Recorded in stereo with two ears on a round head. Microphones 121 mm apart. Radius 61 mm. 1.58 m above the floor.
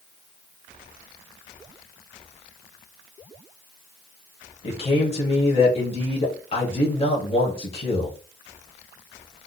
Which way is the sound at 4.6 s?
45° left (ahead or behind).